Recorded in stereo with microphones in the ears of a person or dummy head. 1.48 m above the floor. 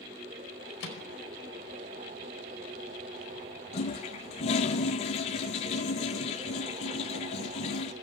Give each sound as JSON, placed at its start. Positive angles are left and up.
{"t": 0.8, "sound": "a microwave", "side_deg": 80, "distance_m": 4.5}
{"t": 3.7, "sound": "a toilet flushing", "side_deg": 35, "distance_m": 0.8}